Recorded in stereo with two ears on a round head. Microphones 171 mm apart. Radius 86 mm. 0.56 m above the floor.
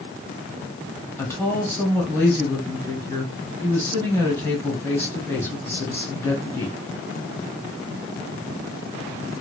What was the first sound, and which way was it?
A woman speaking, 10° left (ahead or behind).